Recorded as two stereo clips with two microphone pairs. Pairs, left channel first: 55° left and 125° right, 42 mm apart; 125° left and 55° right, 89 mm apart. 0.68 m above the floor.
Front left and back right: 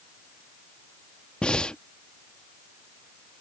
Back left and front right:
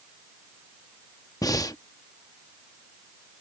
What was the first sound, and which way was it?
Breathing, 105° left.